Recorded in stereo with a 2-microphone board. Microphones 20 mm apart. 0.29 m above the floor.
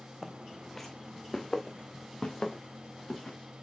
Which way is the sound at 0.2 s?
Centre (ahead or behind).